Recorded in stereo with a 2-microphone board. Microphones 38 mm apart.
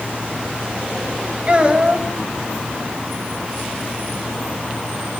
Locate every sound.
1.5 s a child speaking: 30° right (ahead or behind), 4 m